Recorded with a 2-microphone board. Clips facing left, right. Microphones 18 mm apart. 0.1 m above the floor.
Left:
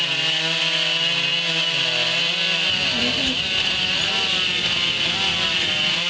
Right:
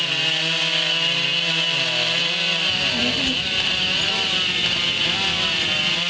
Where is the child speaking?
5° left (ahead or behind).